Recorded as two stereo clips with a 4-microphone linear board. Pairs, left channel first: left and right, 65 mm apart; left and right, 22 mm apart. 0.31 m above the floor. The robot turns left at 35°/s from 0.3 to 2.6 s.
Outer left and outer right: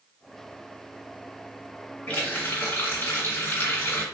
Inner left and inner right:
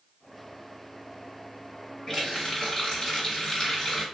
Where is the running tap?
20° left (ahead or behind), 1.9 m; by 4.0 s 40° left (ahead or behind), 1.9 m.